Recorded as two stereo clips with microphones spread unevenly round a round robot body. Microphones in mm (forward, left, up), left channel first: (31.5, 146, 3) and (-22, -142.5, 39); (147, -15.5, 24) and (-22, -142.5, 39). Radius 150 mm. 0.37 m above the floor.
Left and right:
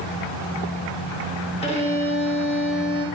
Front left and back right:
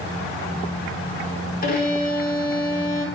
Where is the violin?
25° left, 0.8 m.